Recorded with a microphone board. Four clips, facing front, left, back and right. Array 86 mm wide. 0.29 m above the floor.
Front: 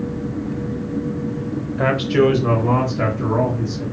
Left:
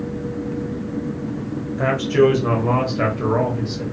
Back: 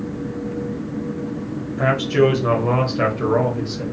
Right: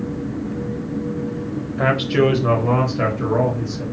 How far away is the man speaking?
About 1.2 m.